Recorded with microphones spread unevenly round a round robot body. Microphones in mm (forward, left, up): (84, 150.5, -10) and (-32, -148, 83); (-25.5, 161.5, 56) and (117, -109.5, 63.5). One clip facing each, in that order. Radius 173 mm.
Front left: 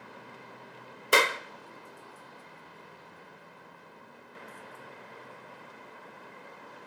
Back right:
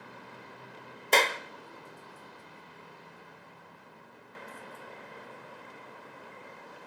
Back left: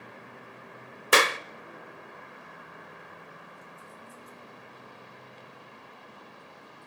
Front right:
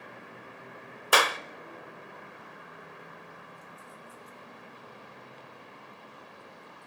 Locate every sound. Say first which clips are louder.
1.1 s a clap: front left 1 dB, back left 3 dB; 85° left, 0.7 m